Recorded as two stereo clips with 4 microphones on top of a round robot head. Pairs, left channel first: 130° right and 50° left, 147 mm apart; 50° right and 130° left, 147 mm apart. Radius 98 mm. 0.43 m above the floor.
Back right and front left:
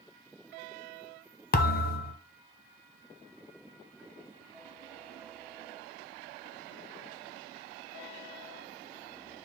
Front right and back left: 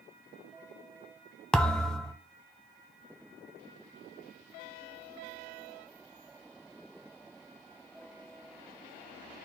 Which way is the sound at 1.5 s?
135° right.